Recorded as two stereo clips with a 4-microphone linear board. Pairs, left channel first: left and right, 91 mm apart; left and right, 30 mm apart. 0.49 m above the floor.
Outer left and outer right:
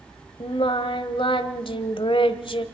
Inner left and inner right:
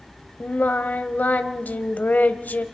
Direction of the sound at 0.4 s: 70° left (ahead or behind).